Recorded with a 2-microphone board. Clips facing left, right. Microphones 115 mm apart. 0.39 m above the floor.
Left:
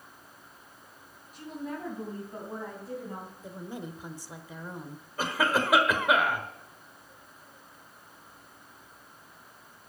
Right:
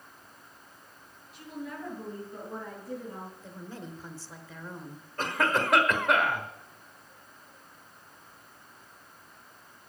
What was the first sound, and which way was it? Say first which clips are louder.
A woman speaking: left 2 dB; 45° left (ahead or behind).